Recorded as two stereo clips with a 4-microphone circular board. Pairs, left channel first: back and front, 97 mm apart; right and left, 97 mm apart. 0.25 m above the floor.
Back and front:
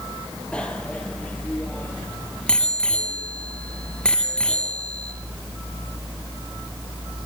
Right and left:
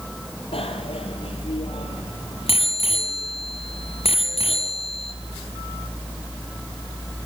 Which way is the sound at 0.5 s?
100° right.